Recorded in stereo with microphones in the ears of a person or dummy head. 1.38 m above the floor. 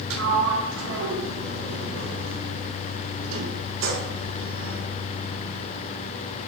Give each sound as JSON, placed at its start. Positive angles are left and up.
{"t": 0.1, "sound": "a sliding door", "side_deg": -80, "distance_m": 1.1}